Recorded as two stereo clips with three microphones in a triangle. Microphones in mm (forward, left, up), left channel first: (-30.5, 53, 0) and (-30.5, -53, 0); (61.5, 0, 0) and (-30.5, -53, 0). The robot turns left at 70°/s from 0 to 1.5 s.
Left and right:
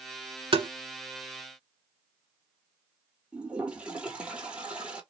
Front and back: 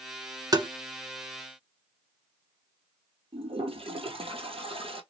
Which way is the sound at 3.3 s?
170° right.